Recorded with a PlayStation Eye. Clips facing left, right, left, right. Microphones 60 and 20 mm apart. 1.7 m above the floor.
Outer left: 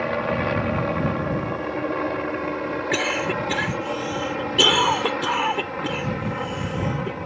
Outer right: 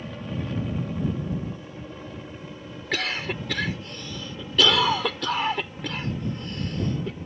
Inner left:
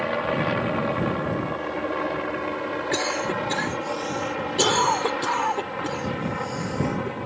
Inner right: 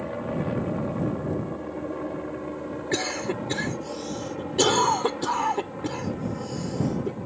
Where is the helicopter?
70° left (ahead or behind).